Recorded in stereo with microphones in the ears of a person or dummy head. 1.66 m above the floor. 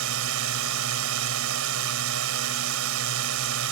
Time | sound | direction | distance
0.0 | a drone | 70° right (ahead or behind) | ?